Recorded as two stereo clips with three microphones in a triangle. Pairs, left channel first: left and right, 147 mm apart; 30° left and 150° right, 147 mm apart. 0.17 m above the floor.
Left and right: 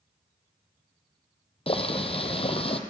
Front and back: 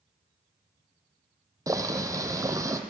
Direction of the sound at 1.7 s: 140° left.